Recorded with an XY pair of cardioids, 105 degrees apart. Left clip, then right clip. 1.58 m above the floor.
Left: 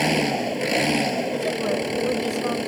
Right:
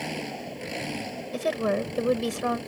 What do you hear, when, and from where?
0.0 s an engine running: 65° left
1.3 s a woman speaking: 25° right